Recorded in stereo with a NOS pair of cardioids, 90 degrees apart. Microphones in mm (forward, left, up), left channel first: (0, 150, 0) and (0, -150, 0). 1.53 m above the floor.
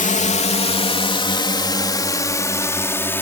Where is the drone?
25° left; by 3.2 s 5° left.